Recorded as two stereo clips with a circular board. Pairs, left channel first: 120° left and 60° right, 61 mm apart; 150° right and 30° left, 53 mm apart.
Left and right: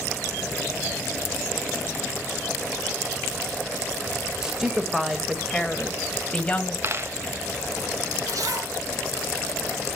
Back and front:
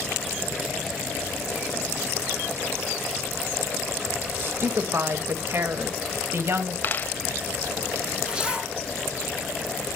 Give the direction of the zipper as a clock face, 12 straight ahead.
1 o'clock.